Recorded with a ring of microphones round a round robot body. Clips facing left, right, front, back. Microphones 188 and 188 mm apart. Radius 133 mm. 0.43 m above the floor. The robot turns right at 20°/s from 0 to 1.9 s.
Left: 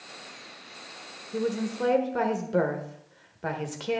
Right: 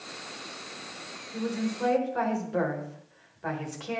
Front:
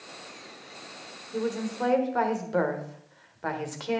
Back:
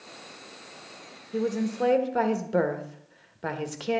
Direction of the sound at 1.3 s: 120° left.